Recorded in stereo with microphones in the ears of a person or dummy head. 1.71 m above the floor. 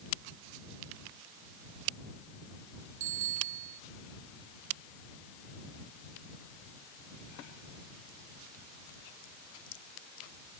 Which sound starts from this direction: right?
A bicycle bell, at 3.0 s.